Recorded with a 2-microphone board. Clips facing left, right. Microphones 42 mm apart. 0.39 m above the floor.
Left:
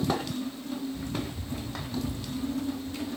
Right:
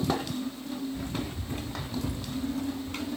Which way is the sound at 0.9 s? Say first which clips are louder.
Even; 35° right (ahead or behind).